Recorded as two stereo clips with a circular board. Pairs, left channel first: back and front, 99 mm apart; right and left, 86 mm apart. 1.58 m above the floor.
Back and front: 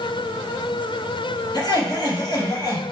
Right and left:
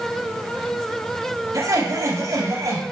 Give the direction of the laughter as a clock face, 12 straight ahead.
7 o'clock.